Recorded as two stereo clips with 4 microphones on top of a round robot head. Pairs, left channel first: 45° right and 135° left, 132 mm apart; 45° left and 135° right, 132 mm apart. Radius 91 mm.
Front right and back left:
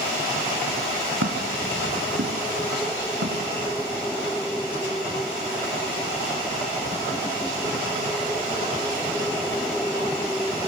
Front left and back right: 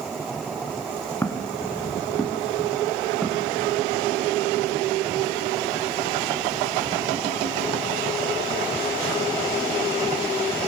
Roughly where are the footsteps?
Behind left.